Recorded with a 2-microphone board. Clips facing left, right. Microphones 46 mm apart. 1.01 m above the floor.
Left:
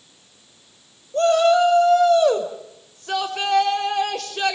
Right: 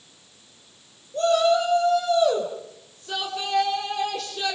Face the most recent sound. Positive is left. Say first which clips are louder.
# left 4 dB
turn(degrees=70)  # may be behind; listen again after turning